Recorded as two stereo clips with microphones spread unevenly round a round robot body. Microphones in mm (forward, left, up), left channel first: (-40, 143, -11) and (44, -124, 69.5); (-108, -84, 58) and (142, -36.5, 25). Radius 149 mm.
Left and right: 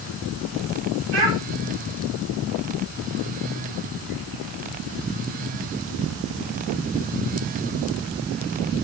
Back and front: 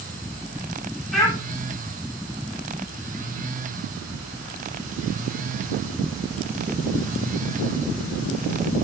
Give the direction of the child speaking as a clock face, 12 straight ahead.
3 o'clock.